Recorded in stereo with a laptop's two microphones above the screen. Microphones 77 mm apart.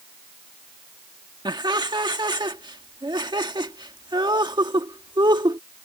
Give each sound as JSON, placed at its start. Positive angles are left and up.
{"t": 1.4, "sound": "laughter", "side_deg": -70}